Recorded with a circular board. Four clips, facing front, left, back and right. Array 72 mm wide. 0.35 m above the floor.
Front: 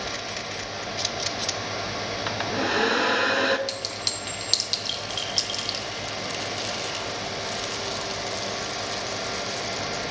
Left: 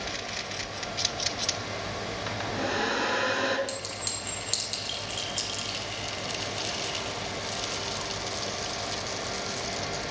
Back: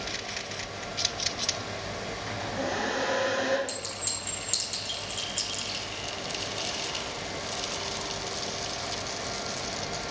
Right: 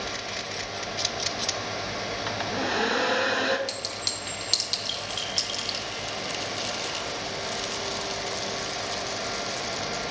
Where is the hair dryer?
10° right, 0.6 m.